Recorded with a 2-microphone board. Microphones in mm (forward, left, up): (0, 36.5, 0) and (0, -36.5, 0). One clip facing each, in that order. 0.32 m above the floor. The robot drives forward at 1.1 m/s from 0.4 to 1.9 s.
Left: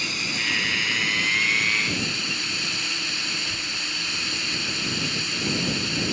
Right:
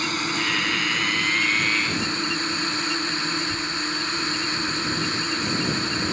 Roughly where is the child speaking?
Centre.